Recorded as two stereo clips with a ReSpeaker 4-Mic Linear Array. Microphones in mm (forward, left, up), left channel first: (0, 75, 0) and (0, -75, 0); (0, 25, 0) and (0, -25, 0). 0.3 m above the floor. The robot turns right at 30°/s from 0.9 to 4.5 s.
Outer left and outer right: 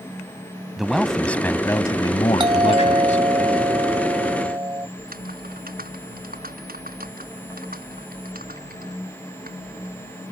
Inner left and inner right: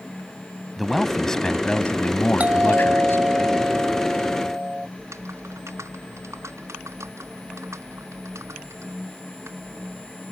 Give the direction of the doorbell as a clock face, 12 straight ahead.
4 o'clock.